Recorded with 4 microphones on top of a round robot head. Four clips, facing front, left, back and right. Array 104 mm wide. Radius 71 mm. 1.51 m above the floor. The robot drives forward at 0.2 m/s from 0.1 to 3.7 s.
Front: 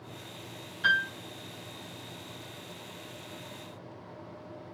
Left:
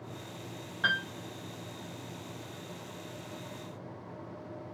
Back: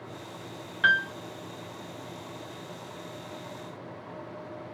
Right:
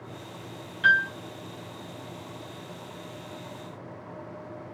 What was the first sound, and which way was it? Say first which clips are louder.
A piano: right 10 dB, back 3 dB; 140° left.